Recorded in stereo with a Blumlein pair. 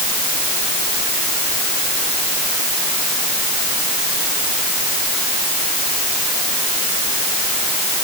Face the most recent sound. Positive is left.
No sound to turn to.